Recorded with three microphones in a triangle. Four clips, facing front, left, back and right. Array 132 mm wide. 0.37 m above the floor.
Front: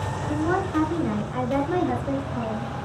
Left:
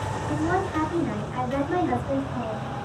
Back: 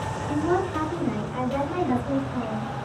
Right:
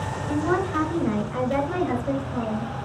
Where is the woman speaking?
80° right, 3.5 m; by 2.7 s 70° right, 4.5 m.